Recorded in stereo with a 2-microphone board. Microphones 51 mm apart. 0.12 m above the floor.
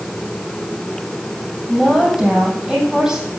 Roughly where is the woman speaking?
Centre.